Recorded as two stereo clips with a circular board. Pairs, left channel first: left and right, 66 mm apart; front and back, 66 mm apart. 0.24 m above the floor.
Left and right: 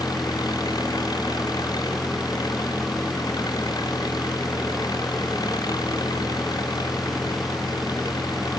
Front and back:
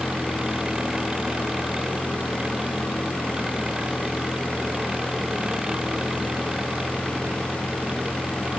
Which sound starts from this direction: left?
An engine running, at 0.0 s.